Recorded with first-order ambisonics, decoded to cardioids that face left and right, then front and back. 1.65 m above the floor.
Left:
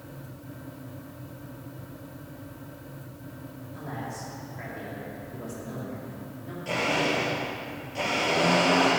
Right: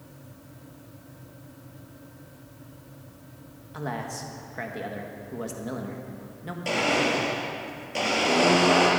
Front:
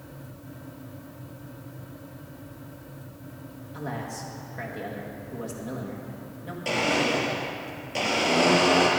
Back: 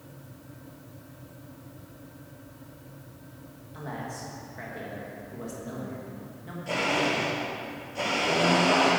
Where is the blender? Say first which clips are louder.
Right 2 dB, front 2 dB; 40° right, 4 m.